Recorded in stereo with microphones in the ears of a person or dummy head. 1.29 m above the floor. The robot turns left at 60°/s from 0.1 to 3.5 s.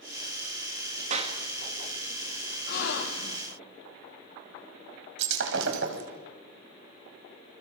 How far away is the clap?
About 1.9 m.